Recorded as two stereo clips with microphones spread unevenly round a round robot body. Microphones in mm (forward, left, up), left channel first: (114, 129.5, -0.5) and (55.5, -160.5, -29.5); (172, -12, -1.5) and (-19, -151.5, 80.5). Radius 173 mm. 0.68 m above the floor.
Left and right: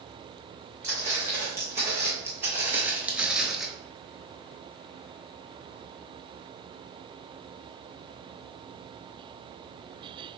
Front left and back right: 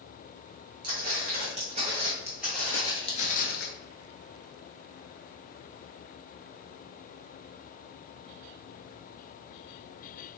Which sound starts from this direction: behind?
Footsteps, at 0.8 s.